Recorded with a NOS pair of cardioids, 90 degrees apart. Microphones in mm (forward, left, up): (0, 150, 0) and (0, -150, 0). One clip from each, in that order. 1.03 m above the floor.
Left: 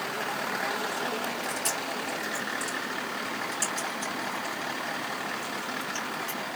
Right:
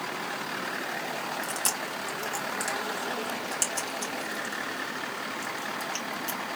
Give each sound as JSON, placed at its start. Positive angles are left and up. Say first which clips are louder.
{"t": 1.4, "sound": "chewing", "louder": "even", "azimuth_deg": -65, "distance_m": 2.5}